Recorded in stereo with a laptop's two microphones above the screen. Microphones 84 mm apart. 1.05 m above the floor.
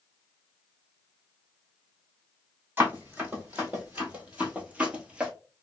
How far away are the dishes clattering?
No dishes clattering in this recording.